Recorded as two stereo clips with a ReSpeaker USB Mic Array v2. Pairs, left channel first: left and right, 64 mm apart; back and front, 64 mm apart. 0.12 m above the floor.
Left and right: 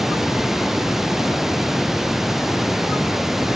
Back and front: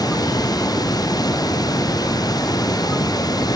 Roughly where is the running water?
Behind.